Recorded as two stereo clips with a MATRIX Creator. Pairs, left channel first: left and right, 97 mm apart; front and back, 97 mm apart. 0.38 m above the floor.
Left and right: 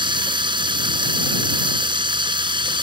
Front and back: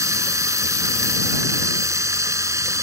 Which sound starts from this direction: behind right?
Running water, at 0.0 s.